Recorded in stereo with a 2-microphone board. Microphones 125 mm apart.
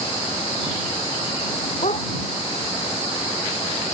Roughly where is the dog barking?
Left.